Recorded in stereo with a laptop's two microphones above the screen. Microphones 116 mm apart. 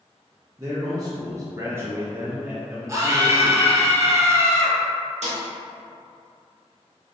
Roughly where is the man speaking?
Right.